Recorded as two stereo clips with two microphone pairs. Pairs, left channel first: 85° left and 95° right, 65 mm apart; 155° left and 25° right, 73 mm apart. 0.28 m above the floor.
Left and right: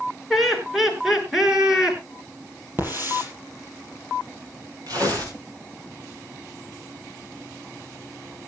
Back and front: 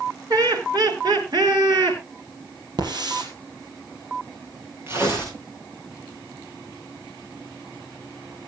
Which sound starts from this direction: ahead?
Laughter, at 0.3 s.